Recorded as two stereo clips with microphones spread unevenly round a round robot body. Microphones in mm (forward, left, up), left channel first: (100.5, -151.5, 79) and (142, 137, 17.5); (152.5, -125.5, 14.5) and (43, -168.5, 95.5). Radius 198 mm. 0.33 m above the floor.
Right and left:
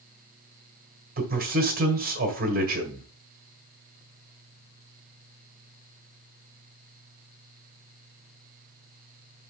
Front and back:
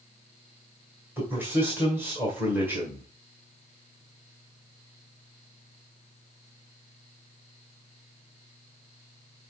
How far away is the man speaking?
About 1.7 m.